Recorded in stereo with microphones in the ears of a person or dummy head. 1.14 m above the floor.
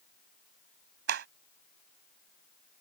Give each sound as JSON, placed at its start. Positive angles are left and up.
{"t": 1.1, "sound": "a clap", "side_deg": -70}